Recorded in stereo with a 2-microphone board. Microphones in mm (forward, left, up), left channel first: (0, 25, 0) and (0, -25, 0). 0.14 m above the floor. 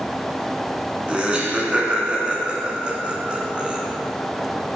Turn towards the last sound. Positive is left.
turn(degrees=-20)  # may be behind; listen again after turning